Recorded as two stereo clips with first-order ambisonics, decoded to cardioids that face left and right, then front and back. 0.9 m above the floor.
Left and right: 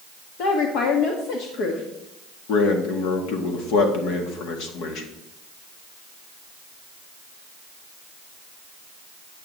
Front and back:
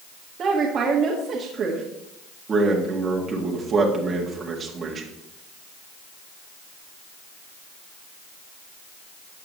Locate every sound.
0.4 s a woman speaking: 120° left, 1.4 m
2.5 s a man speaking: 115° left, 1.9 m